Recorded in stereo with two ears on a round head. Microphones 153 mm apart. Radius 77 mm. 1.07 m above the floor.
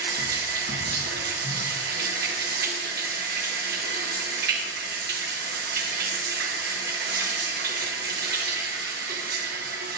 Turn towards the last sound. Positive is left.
turn(degrees=-60)  # may be behind; listen again after turning